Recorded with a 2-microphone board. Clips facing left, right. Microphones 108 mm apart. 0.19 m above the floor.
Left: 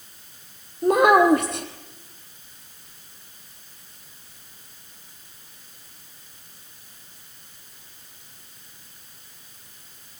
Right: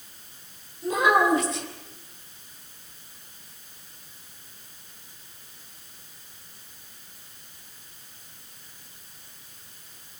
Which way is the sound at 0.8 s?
55° left (ahead or behind).